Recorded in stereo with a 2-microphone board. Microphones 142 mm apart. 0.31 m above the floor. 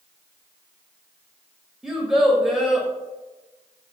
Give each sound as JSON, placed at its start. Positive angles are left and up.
{"t": 1.8, "sound": "a child speaking", "side_deg": -5, "distance_m": 0.6}